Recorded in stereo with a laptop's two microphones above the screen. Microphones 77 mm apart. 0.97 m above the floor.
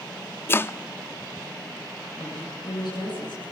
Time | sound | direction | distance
0.5 | chopping | 30° left (ahead or behind) | 0.5 m
2.2 | a woman speaking | 65° left (ahead or behind) | 9.5 m